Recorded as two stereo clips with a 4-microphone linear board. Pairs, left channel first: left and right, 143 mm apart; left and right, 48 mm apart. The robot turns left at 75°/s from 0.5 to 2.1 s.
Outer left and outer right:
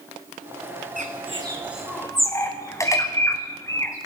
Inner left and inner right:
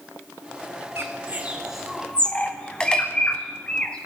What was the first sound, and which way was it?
A bird, 65° right (ahead or behind).